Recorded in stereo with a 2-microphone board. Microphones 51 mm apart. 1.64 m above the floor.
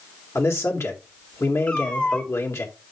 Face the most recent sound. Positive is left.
turn(degrees=20)  # may be behind; listen again after turning